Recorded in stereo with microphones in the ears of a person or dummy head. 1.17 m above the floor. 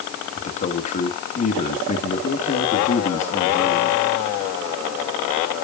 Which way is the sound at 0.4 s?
40° left (ahead or behind).